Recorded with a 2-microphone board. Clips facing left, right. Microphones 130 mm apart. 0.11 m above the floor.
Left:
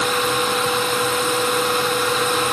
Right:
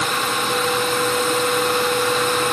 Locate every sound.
Only background noise.